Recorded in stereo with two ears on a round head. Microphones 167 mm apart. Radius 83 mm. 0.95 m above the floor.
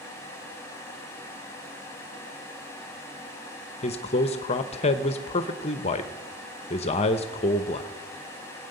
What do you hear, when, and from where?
3.8 s a man speaking: 35° left (ahead or behind), 0.7 m